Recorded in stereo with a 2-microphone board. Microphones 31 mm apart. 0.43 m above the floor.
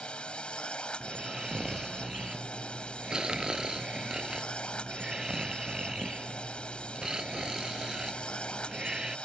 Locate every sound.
0.0 s a drone: 35° left (ahead or behind)
1.0 s snoring: 25° right (ahead or behind)